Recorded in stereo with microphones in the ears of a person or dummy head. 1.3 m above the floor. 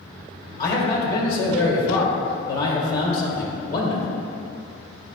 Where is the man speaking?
55° left (ahead or behind), 1.7 m.